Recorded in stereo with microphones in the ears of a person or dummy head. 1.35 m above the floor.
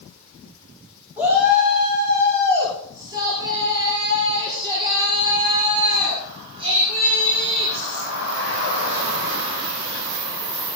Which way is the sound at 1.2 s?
5° right (ahead or behind).